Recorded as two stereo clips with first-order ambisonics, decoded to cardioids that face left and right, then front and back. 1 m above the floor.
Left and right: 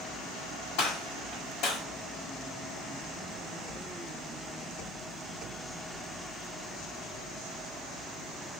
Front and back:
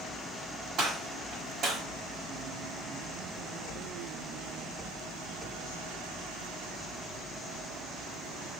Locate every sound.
0.8 s a gunshot: 125° left, 1.6 m